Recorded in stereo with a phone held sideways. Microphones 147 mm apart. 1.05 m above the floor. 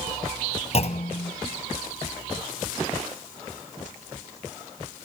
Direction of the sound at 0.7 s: 45° left (ahead or behind).